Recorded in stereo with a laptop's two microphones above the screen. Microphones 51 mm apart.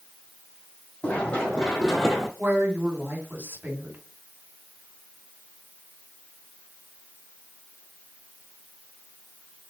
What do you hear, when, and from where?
1.0 s running footsteps: 25° left (ahead or behind), 2.5 m; by 2.3 s 5° left (ahead or behind), 1.8 m
2.4 s a woman speaking: 40° right (ahead or behind), 2 m